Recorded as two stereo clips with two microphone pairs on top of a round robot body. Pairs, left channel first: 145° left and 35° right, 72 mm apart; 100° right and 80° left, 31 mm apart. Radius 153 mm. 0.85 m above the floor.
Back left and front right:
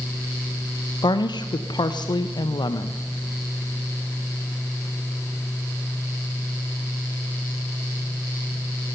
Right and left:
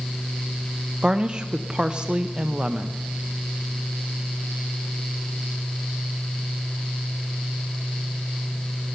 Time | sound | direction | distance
1.0 | a woman speaking | 135° left | 0.6 m